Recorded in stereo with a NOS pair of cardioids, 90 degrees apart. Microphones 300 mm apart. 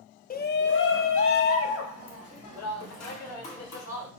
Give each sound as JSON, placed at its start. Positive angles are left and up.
{"t": 0.3, "sound": "a shout", "azimuth_deg": 30, "distance_m": 0.6}